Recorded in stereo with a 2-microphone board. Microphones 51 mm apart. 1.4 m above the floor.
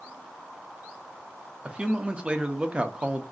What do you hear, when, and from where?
1.6 s a man speaking: 25° right (ahead or behind), 0.6 m